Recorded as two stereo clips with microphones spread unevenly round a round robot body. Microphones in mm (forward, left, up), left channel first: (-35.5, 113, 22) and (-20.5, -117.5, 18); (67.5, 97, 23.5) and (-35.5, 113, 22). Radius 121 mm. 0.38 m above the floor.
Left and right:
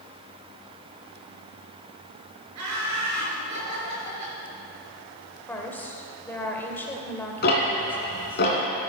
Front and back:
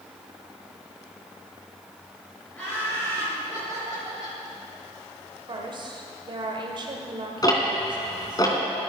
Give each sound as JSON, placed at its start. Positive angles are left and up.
{"t": 2.5, "sound": "laughter", "azimuth_deg": -95, "distance_m": 5.0}
{"t": 5.5, "sound": "a woman speaking", "azimuth_deg": 175, "distance_m": 1.8}
{"t": 7.4, "sound": "ticking", "azimuth_deg": 45, "distance_m": 3.0}